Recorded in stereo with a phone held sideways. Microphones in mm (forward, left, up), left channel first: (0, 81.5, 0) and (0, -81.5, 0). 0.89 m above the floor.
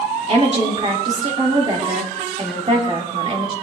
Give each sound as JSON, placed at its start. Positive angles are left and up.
{"t": 0.3, "sound": "a woman speaking", "side_deg": -40, "distance_m": 2.0}